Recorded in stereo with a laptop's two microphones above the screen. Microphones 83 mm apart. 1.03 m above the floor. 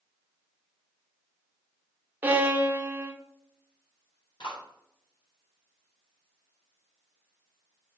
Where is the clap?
75° left (ahead or behind), 3.5 m.